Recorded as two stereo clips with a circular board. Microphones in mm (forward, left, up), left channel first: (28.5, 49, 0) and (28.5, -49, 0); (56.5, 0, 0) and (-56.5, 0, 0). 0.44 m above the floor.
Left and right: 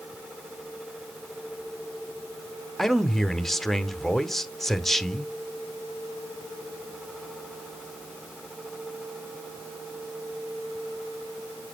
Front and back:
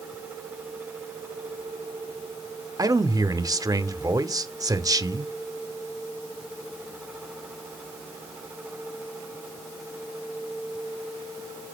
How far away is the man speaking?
About 0.8 m.